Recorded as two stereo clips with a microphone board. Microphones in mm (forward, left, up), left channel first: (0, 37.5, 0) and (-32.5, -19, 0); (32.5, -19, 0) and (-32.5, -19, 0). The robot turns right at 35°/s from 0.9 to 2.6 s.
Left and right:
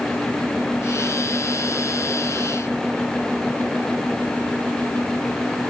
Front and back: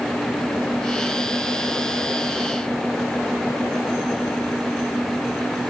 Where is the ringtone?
I don't hear a ringtone.